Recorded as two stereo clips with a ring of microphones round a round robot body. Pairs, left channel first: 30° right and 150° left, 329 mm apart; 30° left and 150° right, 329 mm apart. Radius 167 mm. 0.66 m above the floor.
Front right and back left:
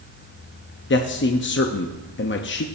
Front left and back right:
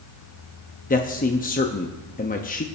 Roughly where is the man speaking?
Ahead.